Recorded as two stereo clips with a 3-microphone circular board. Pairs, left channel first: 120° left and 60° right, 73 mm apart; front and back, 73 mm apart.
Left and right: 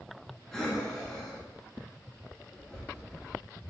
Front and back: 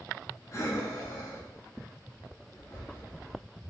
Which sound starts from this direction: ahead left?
Breathing, at 0.5 s.